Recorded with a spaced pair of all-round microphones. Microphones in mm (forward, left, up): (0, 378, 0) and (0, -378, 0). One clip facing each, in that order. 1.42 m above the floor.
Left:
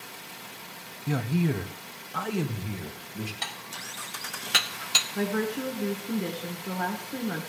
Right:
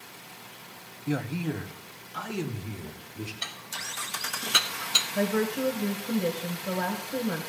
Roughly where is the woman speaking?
Centre.